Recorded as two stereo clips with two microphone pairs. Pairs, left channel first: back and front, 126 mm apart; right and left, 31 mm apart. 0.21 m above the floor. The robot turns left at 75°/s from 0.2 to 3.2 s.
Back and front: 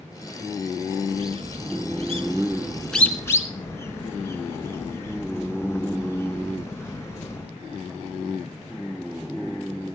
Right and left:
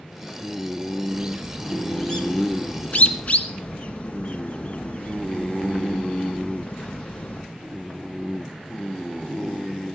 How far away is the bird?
About 1.0 m.